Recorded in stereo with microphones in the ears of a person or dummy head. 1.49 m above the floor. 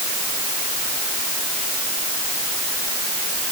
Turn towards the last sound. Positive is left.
No sound to turn to.